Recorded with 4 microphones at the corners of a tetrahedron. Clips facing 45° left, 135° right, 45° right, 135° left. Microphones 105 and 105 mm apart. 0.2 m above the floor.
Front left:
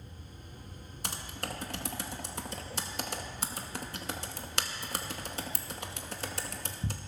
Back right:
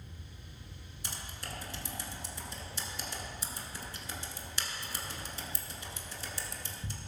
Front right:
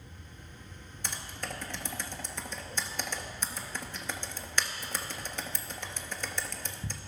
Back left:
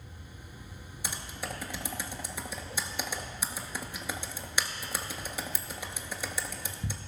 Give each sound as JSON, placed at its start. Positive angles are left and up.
{"t": 1.0, "sound": "typing on a keyboard", "azimuth_deg": 55, "distance_m": 0.8}